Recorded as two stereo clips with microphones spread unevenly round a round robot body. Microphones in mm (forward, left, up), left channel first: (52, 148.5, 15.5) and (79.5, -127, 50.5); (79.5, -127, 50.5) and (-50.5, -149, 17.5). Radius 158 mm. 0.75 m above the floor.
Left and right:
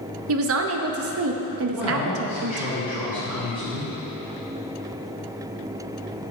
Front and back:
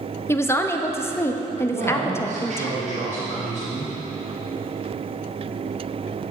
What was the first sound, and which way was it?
A woman speaking, 70° right.